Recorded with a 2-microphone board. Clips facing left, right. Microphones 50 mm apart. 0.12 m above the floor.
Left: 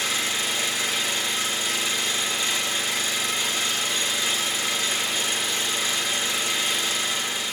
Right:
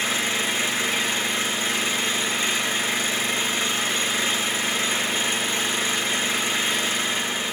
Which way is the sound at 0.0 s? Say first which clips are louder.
Right 2 dB; 40° right (ahead or behind).